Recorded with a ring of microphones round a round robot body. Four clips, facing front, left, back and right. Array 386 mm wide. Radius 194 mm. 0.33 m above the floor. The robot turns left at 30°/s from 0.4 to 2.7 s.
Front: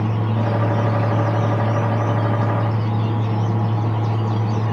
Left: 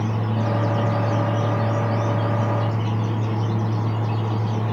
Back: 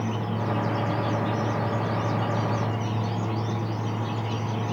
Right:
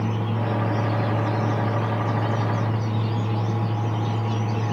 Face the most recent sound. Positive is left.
No sound to turn to.